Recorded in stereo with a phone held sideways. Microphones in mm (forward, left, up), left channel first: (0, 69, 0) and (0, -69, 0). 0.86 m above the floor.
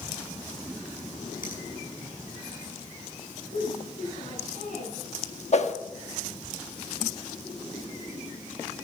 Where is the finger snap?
80° left, 6 m.